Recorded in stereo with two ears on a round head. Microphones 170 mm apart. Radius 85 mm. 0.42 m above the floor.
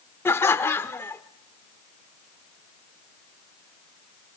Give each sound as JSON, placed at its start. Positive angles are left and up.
{"t": 0.2, "sound": "laughter", "side_deg": 15, "distance_m": 0.7}